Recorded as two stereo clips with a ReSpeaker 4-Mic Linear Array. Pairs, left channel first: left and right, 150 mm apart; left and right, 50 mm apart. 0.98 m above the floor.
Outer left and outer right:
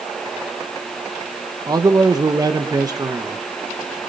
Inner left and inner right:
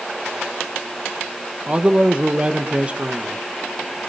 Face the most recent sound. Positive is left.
turn(degrees=-25)  # may be behind; listen again after turning